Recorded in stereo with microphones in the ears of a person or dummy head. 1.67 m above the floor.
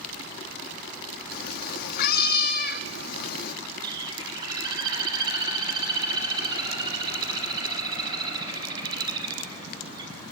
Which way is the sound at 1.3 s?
55° left (ahead or behind).